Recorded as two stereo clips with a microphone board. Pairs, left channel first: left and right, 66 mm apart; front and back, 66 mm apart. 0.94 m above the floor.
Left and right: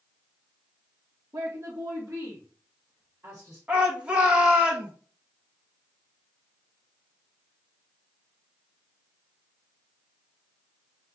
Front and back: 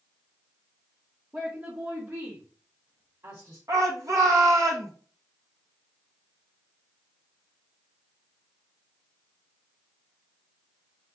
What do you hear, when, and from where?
1.3 s a woman speaking: 135° right, 1.2 m; by 3.6 s 145° right, 3 m
3.7 s a shout: 155° right, 1.2 m